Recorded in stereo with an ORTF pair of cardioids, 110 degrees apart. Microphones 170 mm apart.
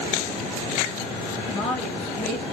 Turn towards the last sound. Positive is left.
turn(degrees=35)